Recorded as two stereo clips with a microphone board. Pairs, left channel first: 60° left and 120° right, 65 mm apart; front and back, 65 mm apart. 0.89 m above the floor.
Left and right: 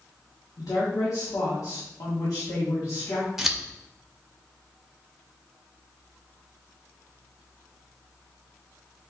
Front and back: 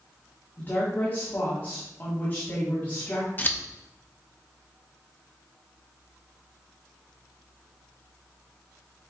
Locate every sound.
0.6 s a woman speaking: 55° left, 1.7 m
3.4 s scissors: 40° right, 0.6 m